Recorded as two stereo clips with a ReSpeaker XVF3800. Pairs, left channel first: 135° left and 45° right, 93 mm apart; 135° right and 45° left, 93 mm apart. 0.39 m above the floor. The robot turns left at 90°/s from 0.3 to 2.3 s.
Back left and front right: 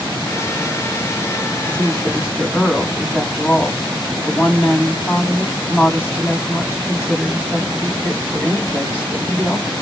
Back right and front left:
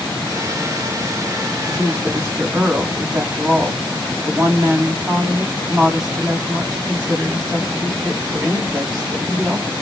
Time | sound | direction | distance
1.5 | a woman speaking | 145° left | 2 m